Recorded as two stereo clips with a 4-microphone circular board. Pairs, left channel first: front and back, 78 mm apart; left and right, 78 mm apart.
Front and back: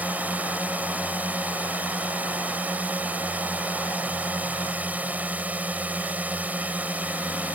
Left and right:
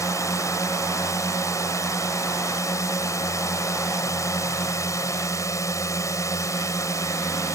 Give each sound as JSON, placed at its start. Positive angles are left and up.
{"t": 0.0, "sound": "a drone", "azimuth_deg": 115}